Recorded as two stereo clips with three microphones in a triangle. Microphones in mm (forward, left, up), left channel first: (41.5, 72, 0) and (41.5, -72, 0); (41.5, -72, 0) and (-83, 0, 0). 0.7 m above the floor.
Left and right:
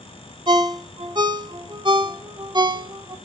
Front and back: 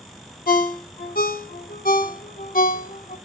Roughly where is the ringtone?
Ahead right.